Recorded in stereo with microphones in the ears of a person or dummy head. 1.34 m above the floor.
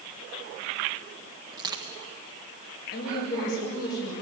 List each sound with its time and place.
1.5 s crushing: 25° right (ahead or behind), 1.4 m
2.9 s a woman speaking: 60° left (ahead or behind), 7 m